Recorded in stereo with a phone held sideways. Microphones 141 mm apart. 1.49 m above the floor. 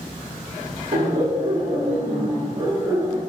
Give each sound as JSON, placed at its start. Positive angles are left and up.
{"t": 0.9, "sound": "laughter", "side_deg": -70, "distance_m": 1.4}